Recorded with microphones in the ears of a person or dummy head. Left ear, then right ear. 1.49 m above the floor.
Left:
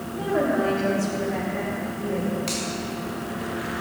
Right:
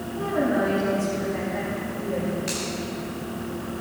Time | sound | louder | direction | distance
0.1 | a woman speaking | left 1 dB | 50° left (ahead or behind) | 3 m
2.5 | a finger snap | left 1 dB | 20° left (ahead or behind) | 3.5 m